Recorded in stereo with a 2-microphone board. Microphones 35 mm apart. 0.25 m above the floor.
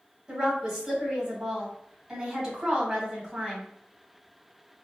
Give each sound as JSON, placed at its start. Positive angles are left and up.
{"t": 0.3, "sound": "a woman speaking", "side_deg": -15, "distance_m": 1.8}